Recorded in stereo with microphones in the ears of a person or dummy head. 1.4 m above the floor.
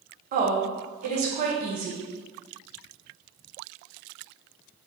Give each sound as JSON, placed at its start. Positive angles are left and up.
{"t": 0.3, "sound": "a woman speaking", "side_deg": -45, "distance_m": 0.9}